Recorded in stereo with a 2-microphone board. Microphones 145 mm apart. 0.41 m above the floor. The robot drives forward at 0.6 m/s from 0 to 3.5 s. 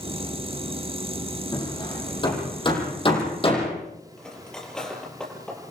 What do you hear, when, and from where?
1.5 s hammering: 30° left (ahead or behind), 8 m; by 3.7 s 35° left (ahead or behind), 7 m
4.2 s cutlery clinking: 5° left (ahead or behind), 5.5 m